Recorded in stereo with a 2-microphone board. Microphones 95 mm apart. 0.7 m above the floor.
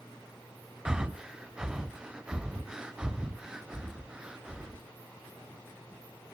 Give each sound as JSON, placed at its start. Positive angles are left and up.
{"t": 0.8, "sound": "breathing", "side_deg": -5, "distance_m": 0.6}